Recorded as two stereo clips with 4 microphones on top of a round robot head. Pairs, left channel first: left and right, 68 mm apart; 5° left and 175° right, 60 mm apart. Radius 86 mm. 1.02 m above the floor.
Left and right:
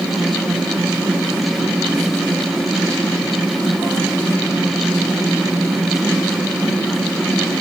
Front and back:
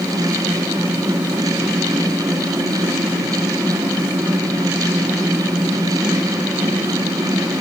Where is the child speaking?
No child speaking in this recording.